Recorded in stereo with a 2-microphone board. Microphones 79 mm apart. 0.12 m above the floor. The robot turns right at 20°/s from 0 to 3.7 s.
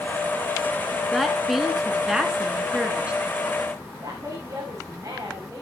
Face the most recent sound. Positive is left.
turn(degrees=-40)  # may be behind; listen again after turning